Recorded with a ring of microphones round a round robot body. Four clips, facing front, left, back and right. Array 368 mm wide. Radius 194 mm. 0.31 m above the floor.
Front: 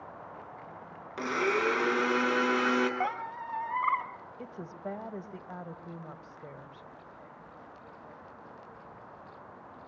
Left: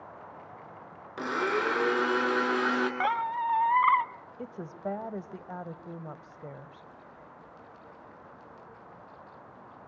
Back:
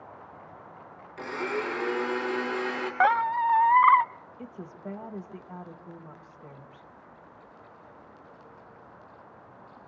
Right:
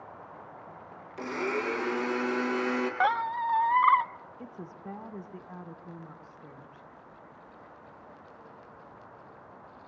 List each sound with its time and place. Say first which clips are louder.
1.2 s a blender: left 3 dB, front 3 dB; 50° left, 5 m
3.0 s a squeak: right 1 dB, back 11 dB; 170° right, 0.6 m
4.4 s a woman speaking: left 8 dB, even; 80° left, 2 m